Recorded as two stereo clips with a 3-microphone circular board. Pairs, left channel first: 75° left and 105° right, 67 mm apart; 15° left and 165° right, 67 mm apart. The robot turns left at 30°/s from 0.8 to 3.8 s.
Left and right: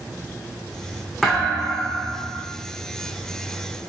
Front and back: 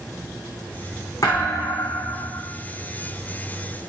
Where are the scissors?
I don't hear scissors.